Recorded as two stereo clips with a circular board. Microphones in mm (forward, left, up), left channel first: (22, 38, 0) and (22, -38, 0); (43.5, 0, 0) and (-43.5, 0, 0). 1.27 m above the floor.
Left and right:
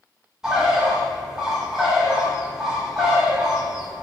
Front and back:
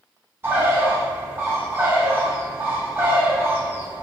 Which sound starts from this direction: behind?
A bird, at 0.4 s.